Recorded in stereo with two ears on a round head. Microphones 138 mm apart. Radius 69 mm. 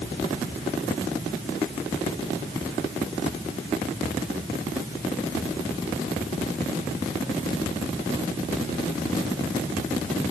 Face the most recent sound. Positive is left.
No sound to turn to.